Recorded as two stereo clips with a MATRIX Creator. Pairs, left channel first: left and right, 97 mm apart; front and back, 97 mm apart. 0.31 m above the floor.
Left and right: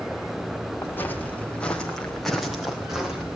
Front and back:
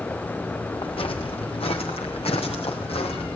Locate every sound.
0.8 s footsteps: 20° left, 3 m; by 3.4 s 10° right, 4 m